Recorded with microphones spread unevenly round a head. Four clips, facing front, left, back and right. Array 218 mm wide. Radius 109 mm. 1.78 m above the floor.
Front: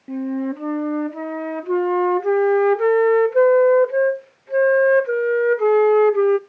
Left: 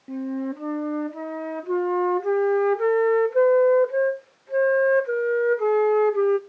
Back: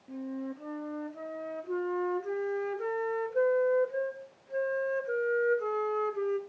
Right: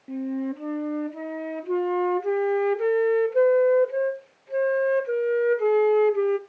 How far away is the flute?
About 0.6 m.